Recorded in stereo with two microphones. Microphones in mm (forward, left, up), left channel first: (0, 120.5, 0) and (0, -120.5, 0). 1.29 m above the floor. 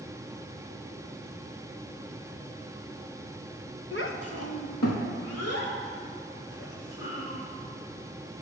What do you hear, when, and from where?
3.9 s a child speaking: 50° left (ahead or behind), 1.0 m; by 7.4 s 65° left (ahead or behind), 5.5 m